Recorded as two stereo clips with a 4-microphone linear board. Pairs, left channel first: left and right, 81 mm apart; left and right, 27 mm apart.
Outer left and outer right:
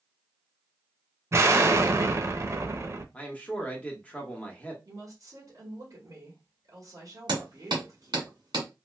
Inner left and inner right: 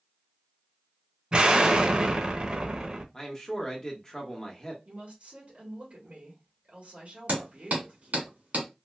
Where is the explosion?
40° right (ahead or behind), 0.5 m.